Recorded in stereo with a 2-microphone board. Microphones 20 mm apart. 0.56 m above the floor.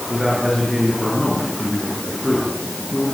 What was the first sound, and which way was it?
A man speaking, 25° right (ahead or behind).